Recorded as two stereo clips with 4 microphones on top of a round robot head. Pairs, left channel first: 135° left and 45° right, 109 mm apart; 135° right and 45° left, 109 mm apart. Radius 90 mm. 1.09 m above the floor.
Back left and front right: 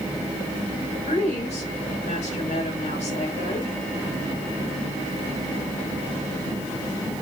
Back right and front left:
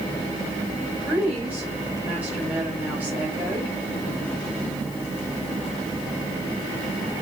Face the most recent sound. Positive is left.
turn(degrees=120)